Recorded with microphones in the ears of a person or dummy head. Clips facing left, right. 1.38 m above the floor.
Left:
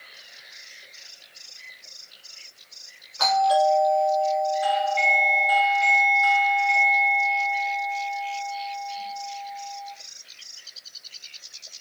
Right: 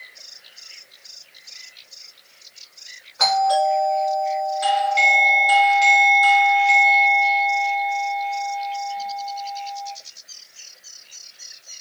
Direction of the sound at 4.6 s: 55° right (ahead or behind).